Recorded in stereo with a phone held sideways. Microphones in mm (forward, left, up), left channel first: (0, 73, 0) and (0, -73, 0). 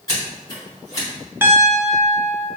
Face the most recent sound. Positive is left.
turn(degrees=-15)  # may be behind; listen again after turning